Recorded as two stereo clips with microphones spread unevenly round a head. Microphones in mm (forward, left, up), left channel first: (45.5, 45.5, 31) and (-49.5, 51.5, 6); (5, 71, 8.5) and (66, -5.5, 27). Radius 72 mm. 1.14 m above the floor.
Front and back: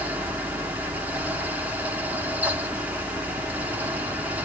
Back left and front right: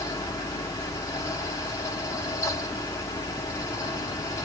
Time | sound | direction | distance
0.0 | a fan | 135° left | 0.9 m